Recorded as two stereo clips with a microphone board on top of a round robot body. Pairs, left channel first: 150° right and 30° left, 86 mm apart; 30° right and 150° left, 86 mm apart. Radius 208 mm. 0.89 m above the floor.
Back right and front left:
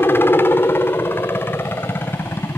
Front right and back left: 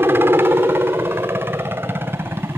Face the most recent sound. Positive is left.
turn(degrees=180)